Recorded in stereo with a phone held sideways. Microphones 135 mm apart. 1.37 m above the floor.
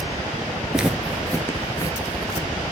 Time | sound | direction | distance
0.7 | footsteps | 10° right (ahead or behind) | 1.4 m